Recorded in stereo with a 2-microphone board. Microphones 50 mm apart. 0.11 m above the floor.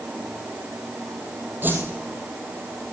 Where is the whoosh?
40° right (ahead or behind), 2.5 m.